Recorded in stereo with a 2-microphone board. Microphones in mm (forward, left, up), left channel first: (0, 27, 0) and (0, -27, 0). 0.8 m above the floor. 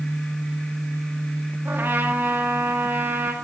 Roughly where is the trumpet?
Right.